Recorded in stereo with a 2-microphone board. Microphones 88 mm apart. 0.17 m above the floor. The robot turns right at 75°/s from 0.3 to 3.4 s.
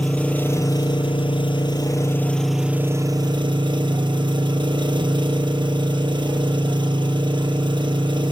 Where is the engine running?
15° left, 1.2 m; by 8.3 s 110° right, 1.2 m.